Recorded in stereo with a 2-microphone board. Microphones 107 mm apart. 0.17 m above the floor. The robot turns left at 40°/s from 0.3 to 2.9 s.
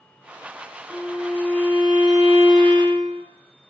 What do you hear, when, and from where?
0.9 s a violin: 55° right, 3.5 m; by 3.2 s 135° right, 3.5 m